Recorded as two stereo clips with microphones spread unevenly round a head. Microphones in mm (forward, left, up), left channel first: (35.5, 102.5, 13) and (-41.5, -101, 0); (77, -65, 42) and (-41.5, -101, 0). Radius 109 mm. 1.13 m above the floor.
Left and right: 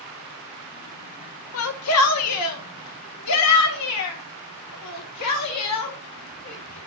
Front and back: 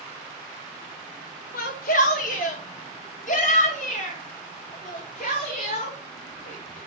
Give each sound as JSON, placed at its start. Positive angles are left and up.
{"t": 1.5, "sound": "a shout", "azimuth_deg": 50, "distance_m": 0.9}